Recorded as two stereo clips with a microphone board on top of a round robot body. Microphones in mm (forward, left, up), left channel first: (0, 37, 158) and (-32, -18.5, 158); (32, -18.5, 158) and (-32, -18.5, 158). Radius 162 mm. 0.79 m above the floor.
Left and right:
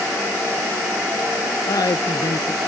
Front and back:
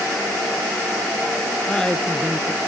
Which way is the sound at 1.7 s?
80° left.